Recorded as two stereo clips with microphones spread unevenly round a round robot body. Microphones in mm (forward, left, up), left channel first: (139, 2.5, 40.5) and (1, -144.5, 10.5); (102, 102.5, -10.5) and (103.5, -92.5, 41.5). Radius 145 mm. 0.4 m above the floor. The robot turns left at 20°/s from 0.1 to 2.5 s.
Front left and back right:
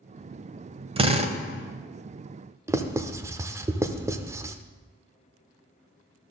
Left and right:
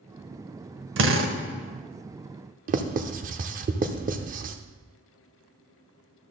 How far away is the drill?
About 1.3 m.